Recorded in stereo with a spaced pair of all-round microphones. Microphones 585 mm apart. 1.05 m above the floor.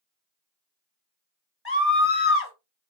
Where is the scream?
20° left (ahead or behind), 1.9 m.